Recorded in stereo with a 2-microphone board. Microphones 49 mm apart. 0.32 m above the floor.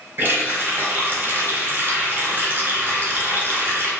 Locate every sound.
0.2 s a running tap: 45° right (ahead or behind), 1.1 m